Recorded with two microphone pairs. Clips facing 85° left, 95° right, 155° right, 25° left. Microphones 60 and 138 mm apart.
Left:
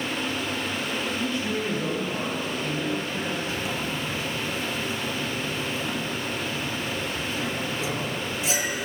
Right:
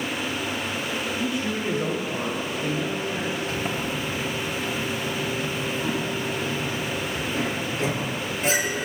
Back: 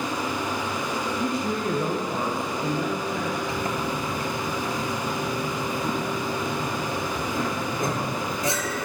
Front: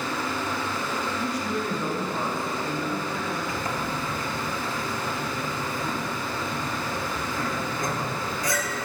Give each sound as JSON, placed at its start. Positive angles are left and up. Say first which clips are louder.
{"t": 1.2, "sound": "a man speaking", "louder": "right 1 dB, back 2 dB", "azimuth_deg": -175, "distance_m": 1.1}
{"t": 3.5, "sound": "a sliding door", "louder": "right 2 dB, back 2 dB", "azimuth_deg": -105, "distance_m": 1.0}